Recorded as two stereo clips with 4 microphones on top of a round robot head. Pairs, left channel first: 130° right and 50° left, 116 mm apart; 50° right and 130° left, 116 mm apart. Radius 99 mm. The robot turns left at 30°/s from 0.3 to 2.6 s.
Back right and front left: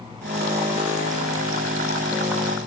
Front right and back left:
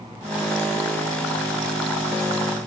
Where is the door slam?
No door slam in this recording.